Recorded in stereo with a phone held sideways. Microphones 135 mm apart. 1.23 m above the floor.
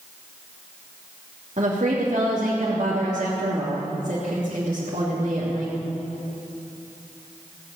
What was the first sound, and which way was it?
A woman speaking, 65° right (ahead or behind).